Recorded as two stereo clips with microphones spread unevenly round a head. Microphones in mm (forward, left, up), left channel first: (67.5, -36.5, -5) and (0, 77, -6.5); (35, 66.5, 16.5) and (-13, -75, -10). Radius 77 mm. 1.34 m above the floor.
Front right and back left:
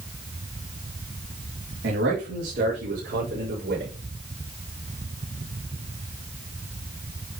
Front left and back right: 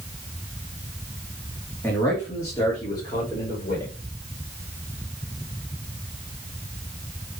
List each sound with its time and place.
1.8 s a man speaking: 150° left, 3 m; by 3.9 s 140° left, 6 m